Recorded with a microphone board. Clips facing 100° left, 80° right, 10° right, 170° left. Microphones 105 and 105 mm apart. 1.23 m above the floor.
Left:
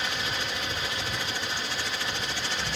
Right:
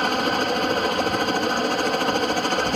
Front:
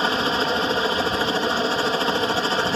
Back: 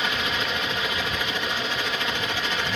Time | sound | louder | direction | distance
0.0 | a helicopter | right 11 dB, front 6 dB | 60° right | ?